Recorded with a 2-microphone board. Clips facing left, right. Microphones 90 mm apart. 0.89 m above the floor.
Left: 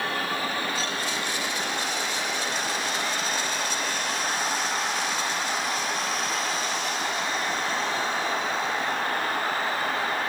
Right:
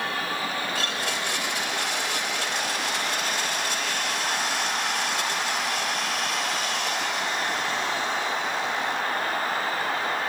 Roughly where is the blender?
Right.